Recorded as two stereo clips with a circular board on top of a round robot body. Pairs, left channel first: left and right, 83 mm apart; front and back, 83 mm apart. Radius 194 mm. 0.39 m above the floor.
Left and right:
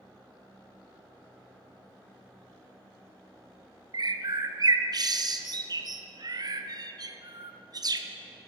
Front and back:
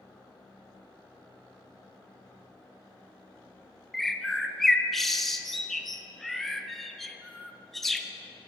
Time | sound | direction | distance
3.9 | a bird | 85° right | 0.6 m